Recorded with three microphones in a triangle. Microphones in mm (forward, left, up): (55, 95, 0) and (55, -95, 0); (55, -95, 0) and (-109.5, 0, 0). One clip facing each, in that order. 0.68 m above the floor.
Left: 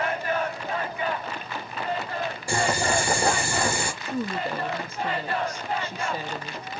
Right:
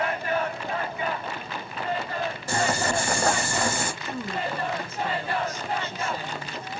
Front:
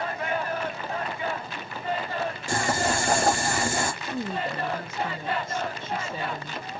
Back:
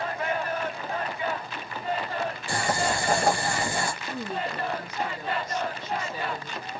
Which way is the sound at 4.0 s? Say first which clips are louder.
Left 2 dB, front 2 dB; 20° left.